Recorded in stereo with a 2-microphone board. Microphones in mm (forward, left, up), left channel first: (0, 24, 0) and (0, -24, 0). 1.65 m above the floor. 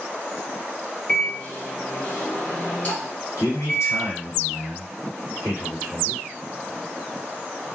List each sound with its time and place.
1.1 s a microwave: 30° left (ahead or behind), 0.9 m
3.4 s a man speaking: 80° left, 1.5 m